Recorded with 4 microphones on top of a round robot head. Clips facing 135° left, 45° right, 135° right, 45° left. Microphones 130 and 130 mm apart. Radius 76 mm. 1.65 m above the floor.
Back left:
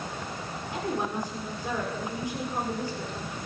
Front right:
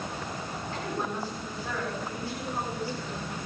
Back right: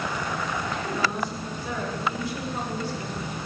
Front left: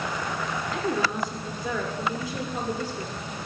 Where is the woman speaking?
60° left, 6.5 m.